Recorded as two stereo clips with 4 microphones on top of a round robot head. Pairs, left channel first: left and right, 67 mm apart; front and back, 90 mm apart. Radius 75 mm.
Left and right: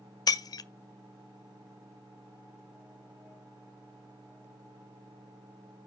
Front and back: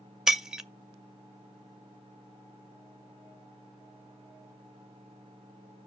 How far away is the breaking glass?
About 0.6 m.